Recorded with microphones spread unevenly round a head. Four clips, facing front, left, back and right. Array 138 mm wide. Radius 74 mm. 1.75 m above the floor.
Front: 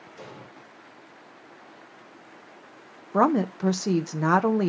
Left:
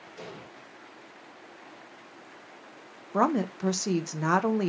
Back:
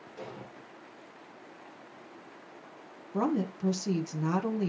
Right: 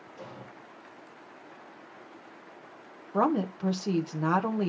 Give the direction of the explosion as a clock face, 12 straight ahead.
7 o'clock.